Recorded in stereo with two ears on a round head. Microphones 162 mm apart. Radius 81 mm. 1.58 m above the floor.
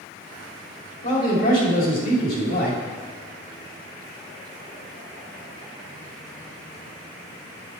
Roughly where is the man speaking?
Left.